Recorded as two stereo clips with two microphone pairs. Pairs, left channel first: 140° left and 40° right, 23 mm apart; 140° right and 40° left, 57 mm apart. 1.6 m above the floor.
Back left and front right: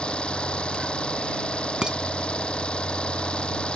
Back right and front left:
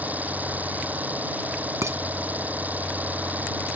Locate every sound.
0.0 s an engine running: 100° left
1.8 s dishes clattering: 10° left